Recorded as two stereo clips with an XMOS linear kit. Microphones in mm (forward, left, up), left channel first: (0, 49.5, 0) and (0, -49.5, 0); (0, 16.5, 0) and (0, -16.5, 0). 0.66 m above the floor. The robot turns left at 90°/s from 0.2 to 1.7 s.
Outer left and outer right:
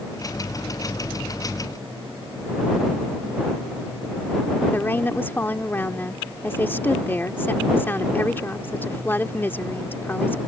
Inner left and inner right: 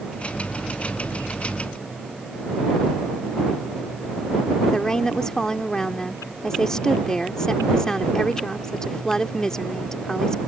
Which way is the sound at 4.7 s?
20° left (ahead or behind).